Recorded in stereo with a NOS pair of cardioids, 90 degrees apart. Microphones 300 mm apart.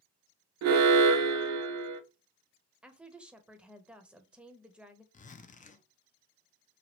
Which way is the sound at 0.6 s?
60° right.